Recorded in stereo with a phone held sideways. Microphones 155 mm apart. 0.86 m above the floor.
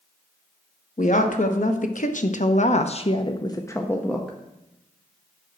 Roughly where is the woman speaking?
Left.